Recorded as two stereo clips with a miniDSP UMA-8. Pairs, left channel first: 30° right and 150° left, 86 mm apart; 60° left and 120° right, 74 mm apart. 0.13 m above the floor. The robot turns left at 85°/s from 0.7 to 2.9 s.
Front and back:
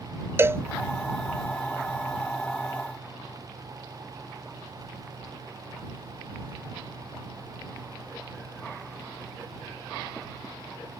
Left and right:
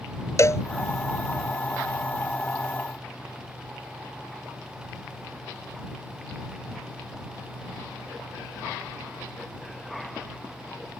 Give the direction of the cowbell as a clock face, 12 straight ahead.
9 o'clock.